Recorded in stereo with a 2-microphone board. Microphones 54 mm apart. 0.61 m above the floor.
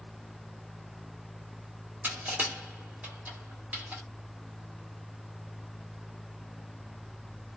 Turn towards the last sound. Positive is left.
turn(degrees=-35)  # may be behind; listen again after turning